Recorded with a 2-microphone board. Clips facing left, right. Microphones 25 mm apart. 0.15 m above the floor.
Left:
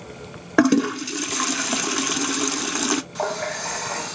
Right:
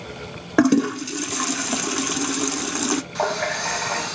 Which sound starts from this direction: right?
A running tap, at 3.1 s.